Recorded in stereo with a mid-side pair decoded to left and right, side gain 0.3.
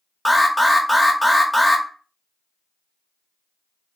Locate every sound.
0.2 s an alarm: straight ahead, 0.7 m